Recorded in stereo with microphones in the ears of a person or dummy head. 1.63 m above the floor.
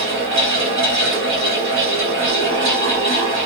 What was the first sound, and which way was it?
A fan, 45° right (ahead or behind).